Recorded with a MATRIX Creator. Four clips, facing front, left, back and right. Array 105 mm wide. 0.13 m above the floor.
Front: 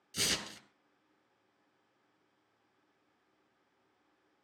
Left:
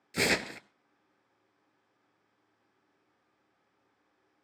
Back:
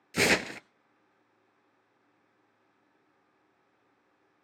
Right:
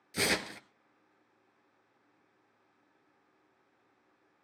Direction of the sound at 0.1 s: 160° left.